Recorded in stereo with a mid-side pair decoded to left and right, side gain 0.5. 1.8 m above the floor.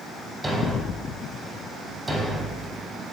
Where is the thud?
20° right, 4.5 m.